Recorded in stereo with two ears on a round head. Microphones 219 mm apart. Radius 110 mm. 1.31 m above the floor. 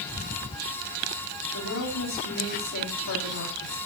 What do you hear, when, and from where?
1.5 s a woman speaking: 55° left (ahead or behind), 4 m